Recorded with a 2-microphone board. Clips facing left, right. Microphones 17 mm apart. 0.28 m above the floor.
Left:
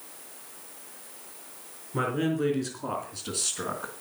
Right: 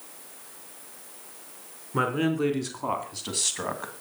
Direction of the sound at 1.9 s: 45° right (ahead or behind).